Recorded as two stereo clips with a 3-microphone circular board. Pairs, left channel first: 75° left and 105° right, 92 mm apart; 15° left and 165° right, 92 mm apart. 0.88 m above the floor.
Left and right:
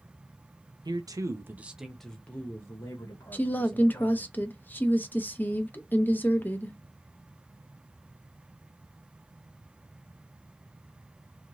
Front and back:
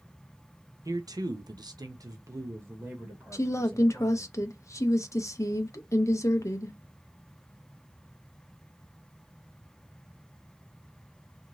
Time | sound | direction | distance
0.8 | a man speaking | 125° right | 0.7 m
3.3 | a woman speaking | 20° left | 0.5 m